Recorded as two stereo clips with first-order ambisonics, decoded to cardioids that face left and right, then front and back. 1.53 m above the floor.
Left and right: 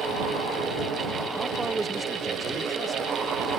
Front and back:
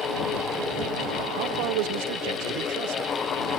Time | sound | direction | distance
1.4 | a man speaking | 165° right | ?